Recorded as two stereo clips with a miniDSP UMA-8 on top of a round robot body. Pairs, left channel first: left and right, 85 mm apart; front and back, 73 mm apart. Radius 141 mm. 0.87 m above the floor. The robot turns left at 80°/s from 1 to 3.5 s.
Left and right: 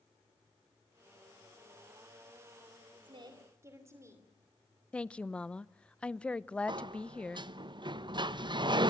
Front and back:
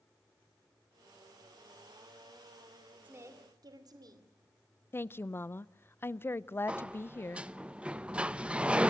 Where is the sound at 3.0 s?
110° right, 2.5 m; by 4.3 s 150° right, 2.5 m.